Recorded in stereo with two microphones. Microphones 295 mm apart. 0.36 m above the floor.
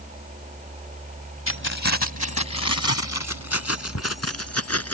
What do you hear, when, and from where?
1.5 s keys jangling: 60° left (ahead or behind); by 5.0 s 55° left (ahead or behind)